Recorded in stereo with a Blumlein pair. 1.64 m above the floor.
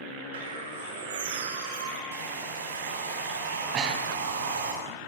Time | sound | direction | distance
0.3 | a bird | 60° right | 5.5 m
2.1 | a hair dryer | 65° right | 7.5 m
3.7 | breathing | 30° right | 4.5 m